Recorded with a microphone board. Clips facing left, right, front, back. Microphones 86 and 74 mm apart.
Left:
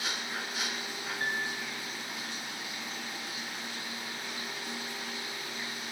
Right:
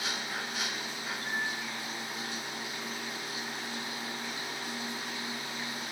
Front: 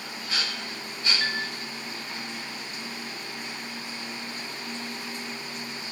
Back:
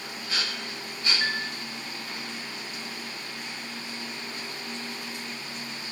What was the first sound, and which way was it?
A piano, 100° left.